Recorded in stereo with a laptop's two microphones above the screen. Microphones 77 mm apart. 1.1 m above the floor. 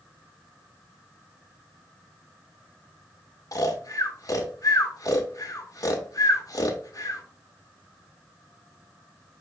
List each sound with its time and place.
3.5 s snoring: 50° left (ahead or behind), 0.7 m